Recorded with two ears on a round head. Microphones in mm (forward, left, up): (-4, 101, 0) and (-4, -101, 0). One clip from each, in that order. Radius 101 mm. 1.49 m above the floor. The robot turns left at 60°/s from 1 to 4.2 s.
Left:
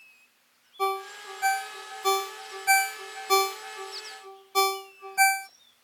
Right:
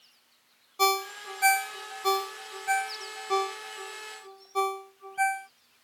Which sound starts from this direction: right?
A ringtone, at 0.8 s.